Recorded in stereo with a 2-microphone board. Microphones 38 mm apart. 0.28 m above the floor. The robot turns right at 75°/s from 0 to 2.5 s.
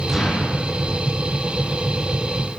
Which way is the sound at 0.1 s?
175° left.